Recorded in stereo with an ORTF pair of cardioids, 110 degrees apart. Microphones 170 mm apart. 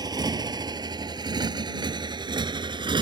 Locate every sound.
0.0 s a motorcycle: 25° right; by 3.0 s 30° right